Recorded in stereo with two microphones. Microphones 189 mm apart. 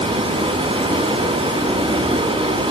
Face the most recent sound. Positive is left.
turn(degrees=-30)  # may be behind; listen again after turning